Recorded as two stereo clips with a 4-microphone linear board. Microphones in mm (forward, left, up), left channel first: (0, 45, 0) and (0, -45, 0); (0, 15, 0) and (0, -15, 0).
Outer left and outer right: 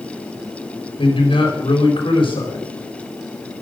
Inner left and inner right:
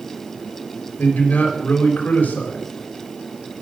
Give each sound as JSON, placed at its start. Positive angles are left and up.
{"t": 1.0, "sound": "a man speaking", "side_deg": 70, "distance_m": 4.0}